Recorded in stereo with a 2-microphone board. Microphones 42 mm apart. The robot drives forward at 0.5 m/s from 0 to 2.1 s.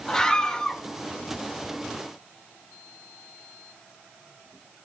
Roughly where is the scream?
Centre.